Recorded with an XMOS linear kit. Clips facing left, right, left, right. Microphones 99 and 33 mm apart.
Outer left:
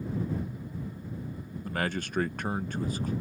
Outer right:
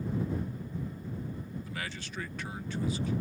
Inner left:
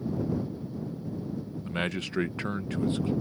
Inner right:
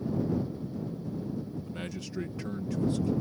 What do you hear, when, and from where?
1.6 s a man speaking: 50° left (ahead or behind); by 3.1 s 45° left (ahead or behind)